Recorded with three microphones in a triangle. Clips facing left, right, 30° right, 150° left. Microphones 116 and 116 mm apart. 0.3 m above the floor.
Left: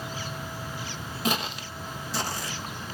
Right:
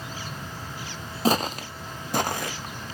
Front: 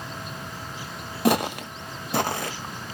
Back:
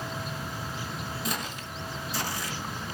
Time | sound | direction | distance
1.2 | footsteps | 35° right | 0.6 m